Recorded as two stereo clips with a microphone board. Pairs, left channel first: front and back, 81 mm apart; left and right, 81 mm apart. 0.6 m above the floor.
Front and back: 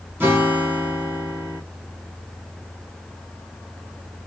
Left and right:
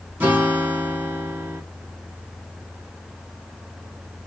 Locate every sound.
0.2 s a guitar: 135° right, 1.2 m